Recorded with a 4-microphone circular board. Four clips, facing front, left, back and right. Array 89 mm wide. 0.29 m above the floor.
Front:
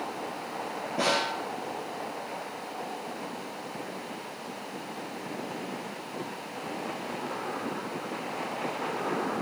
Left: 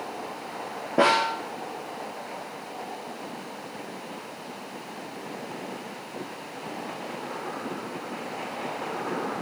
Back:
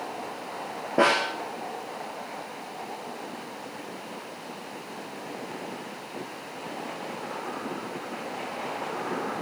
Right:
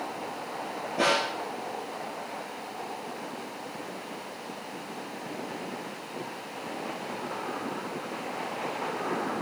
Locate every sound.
1.0 s a snare drum: 135° left, 5.5 m